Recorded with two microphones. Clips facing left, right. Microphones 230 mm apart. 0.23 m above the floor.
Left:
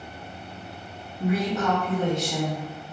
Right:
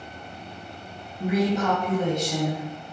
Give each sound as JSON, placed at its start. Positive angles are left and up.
{"t": 1.2, "sound": "a woman speaking", "side_deg": -20, "distance_m": 1.4}